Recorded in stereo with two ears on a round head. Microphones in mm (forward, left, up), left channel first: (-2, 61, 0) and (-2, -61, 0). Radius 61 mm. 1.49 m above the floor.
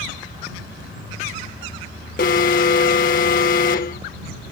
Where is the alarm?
65° left (ahead or behind).